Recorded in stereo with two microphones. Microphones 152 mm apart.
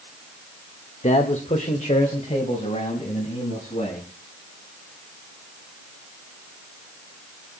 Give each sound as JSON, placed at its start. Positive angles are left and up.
{"t": 1.0, "sound": "a man speaking", "side_deg": 50, "distance_m": 1.5}